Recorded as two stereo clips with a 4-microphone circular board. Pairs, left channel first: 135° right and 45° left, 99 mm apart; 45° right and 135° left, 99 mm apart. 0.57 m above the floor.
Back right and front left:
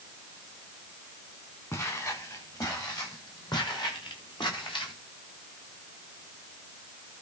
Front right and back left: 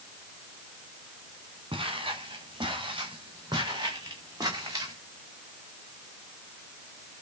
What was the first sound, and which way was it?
Footsteps, 165° left.